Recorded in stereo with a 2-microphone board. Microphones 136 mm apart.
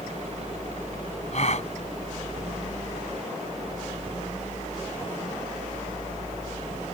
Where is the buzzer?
I don't hear a buzzer.